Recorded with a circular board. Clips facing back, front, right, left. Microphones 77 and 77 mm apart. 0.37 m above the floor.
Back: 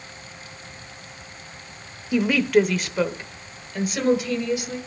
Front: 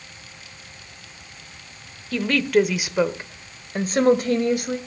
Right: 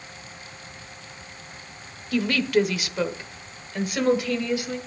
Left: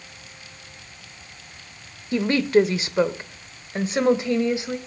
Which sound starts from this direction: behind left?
A woman speaking, at 2.1 s.